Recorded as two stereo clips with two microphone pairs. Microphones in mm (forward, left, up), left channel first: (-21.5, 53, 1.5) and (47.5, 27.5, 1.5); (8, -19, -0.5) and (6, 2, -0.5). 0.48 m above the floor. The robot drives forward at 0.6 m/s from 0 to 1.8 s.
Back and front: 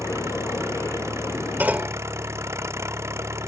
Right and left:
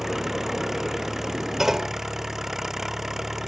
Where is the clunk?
35° left; by 2.0 s 40° left.